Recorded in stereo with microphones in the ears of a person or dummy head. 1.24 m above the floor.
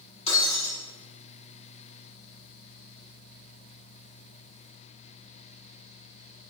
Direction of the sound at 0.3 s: 30° left (ahead or behind).